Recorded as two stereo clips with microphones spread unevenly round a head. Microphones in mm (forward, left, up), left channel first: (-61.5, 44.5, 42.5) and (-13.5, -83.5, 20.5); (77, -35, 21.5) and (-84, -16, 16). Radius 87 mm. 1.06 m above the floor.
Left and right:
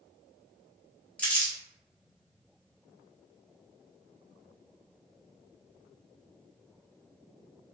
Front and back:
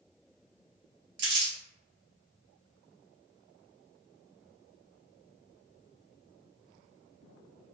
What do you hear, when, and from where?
1.2 s crumpling: 170° right, 1.1 m